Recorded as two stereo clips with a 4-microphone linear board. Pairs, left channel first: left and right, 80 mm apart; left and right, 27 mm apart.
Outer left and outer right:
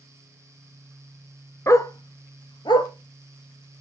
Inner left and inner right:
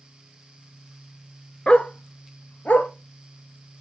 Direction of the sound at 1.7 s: 40° left (ahead or behind).